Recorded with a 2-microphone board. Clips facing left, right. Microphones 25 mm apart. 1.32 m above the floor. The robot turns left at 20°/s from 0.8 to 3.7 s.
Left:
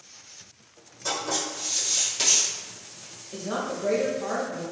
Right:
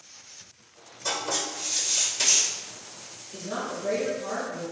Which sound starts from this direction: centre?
Writing, at 1.1 s.